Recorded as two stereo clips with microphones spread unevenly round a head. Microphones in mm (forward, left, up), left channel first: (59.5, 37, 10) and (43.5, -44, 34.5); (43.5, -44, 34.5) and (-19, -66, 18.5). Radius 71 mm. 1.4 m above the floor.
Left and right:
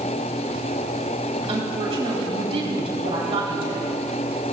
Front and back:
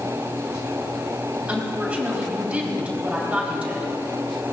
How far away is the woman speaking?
About 4.5 m.